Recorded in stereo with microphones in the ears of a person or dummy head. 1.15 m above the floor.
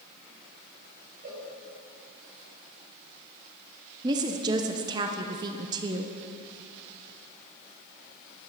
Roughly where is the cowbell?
Right.